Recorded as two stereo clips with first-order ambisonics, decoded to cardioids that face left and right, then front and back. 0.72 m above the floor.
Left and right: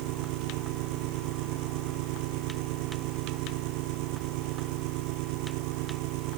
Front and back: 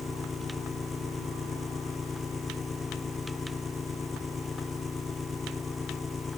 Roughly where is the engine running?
Right.